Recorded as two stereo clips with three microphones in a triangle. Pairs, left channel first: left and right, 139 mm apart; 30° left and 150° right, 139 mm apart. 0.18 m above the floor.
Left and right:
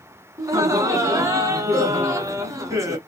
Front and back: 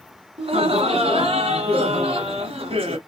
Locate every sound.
0.4 s laughter: 145° right, 1.6 m